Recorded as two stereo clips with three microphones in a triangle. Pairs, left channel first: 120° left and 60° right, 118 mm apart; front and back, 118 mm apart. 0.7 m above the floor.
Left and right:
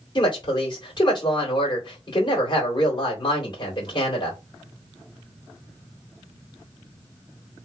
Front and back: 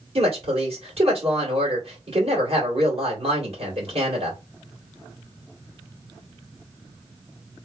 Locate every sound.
0.1 s a woman speaking: 160° left, 2 m